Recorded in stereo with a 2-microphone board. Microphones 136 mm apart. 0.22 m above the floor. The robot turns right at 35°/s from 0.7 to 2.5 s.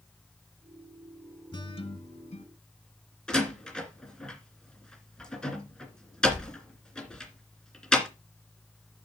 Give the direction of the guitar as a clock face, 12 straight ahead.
11 o'clock.